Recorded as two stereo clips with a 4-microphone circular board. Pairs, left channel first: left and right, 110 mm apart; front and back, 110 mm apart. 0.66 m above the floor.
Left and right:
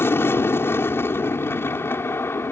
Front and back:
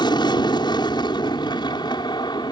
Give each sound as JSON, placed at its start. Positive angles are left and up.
{"t": 0.0, "sound": "an aircraft", "azimuth_deg": 30}